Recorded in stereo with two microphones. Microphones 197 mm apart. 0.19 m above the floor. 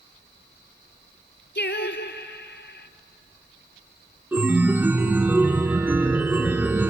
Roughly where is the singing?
Left.